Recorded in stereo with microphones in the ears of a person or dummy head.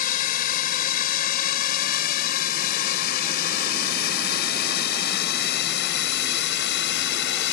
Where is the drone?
45° left (ahead or behind); by 7.5 s 65° left (ahead or behind).